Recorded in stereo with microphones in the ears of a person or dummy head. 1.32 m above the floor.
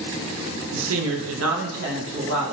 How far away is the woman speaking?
About 0.7 m.